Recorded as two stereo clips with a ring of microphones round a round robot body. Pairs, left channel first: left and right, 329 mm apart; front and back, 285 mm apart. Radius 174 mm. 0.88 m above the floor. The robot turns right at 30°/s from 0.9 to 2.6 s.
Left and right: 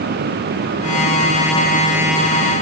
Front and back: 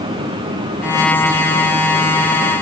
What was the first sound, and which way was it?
Only background noise.